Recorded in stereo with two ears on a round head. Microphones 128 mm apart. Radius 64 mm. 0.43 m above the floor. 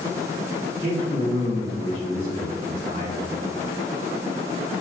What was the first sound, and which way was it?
A man speaking, 20° right (ahead or behind).